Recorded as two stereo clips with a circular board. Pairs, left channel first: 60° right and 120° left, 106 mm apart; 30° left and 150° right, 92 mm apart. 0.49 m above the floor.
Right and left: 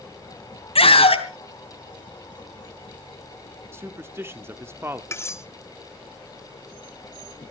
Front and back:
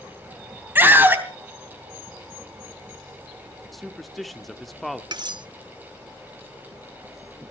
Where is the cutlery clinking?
120° right, 0.8 m.